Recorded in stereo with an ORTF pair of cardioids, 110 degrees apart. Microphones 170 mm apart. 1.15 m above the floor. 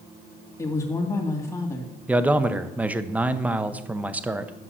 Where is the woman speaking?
15° left, 2.5 m.